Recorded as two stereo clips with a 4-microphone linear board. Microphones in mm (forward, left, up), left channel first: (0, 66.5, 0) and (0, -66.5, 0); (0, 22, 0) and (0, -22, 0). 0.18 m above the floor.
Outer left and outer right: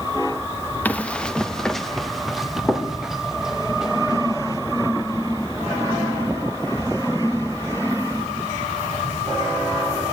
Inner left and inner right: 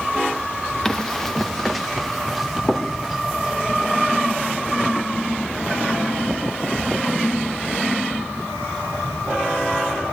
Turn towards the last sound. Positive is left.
turn(degrees=-5)  # may be behind; listen again after turning